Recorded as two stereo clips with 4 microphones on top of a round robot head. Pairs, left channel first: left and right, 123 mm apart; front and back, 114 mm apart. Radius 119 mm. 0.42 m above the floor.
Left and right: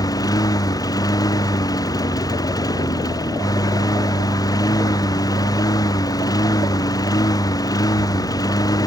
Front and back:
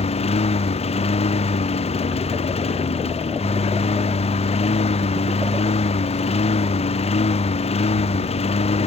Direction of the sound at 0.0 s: 30° left.